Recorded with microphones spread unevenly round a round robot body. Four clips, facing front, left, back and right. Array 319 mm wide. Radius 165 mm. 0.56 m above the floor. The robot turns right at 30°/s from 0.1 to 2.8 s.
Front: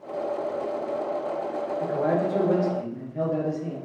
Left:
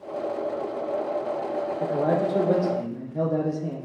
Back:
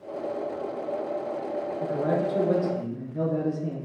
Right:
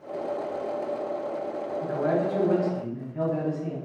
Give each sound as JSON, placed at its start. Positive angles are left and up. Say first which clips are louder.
{"t": 1.8, "sound": "a man speaking", "louder": "left 1 dB, front 2 dB", "azimuth_deg": 80, "distance_m": 0.6}